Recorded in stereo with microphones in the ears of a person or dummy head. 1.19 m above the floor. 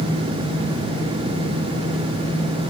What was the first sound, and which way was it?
Only background noise.